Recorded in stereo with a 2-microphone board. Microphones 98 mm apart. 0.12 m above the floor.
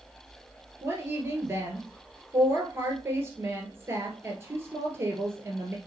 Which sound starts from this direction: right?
A woman speaking, at 0.8 s.